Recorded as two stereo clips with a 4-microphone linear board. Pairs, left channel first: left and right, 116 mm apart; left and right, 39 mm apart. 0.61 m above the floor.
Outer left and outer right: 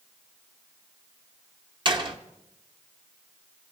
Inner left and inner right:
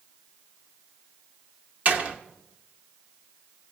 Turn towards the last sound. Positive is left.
turn(degrees=-40)  # may be behind; listen again after turning